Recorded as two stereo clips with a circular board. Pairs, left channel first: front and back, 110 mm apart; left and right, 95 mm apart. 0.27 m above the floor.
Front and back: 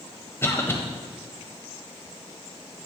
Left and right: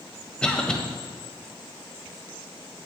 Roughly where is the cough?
Ahead left.